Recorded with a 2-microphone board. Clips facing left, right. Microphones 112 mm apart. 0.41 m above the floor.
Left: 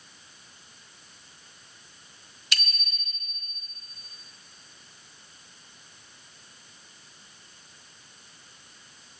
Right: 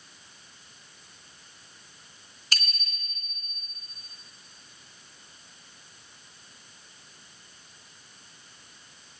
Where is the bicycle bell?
40° right (ahead or behind), 3 m.